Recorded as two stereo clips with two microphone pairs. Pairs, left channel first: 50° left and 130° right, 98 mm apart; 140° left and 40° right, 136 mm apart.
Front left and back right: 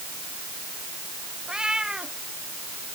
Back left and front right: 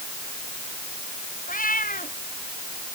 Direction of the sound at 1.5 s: 150° left.